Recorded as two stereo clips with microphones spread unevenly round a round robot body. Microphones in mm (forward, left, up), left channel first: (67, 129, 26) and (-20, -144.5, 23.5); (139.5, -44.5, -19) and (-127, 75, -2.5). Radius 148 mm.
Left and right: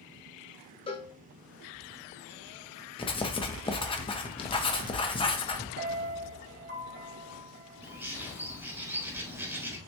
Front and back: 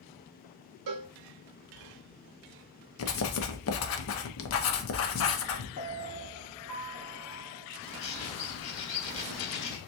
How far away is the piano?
About 1.9 m.